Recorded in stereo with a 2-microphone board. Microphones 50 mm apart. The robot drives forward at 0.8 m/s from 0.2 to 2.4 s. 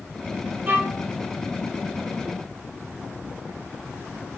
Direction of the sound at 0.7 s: 35° right (ahead or behind).